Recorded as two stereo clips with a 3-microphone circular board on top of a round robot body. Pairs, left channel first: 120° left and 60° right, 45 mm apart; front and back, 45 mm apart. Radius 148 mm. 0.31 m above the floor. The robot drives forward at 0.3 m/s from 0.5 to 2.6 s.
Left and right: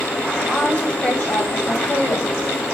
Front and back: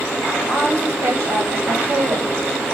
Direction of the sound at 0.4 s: 165° left.